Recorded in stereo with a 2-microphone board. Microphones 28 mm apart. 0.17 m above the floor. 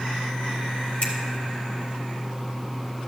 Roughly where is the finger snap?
Left.